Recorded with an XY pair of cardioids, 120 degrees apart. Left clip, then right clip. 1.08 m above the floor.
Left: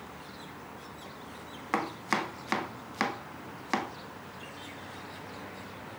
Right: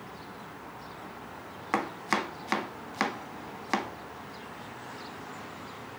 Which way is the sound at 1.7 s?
10° right.